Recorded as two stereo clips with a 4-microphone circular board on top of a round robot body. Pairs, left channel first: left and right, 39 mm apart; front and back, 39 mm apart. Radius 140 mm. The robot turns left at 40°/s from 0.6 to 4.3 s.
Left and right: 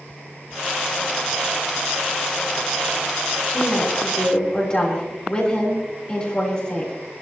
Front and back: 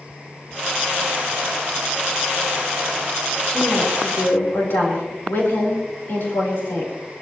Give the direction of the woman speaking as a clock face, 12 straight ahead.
10 o'clock.